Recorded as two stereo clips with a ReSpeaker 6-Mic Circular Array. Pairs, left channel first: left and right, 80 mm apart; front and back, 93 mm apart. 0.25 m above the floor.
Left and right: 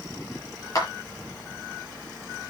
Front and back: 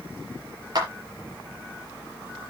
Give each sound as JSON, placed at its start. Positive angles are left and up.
{"t": 0.8, "sound": "a clap", "azimuth_deg": 135, "distance_m": 4.0}